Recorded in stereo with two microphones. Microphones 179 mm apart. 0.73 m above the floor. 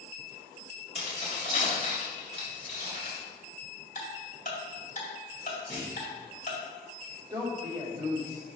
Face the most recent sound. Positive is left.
turn(degrees=-25)  # may be behind; listen again after turning